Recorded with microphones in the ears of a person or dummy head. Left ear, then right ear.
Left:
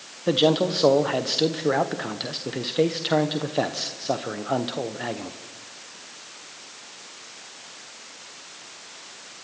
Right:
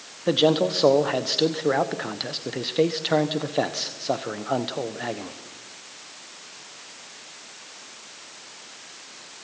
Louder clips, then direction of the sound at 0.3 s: Even; 10° right (ahead or behind).